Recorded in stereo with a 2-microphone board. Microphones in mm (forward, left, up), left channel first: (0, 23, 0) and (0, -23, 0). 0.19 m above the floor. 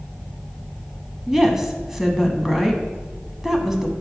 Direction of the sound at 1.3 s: 10° right (ahead or behind).